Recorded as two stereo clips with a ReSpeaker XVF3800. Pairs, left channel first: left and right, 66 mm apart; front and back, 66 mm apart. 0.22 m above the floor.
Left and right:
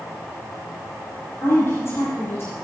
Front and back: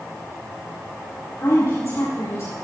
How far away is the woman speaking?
About 6.5 m.